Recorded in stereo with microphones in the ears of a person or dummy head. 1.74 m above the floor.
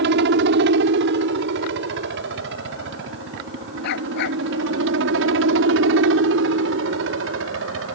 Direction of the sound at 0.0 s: 65° right (ahead or behind).